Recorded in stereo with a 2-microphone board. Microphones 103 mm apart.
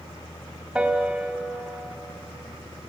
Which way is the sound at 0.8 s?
10° right (ahead or behind).